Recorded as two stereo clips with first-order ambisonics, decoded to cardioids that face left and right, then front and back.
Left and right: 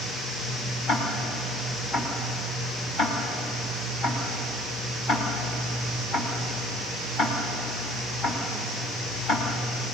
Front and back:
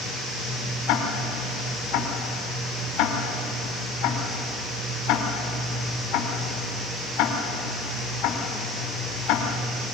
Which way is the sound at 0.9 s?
25° left.